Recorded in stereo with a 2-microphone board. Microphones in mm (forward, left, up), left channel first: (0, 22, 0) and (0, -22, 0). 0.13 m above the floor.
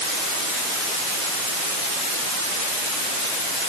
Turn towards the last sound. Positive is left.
No sound to turn to.